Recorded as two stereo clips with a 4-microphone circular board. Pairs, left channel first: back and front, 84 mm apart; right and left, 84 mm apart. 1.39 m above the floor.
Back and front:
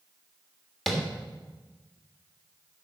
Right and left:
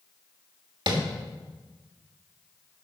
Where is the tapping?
90° left, 1.6 m.